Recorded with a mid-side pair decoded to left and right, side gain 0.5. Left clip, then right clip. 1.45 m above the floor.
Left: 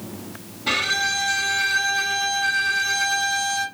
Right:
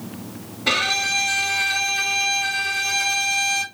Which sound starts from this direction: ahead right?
A violin, at 0.7 s.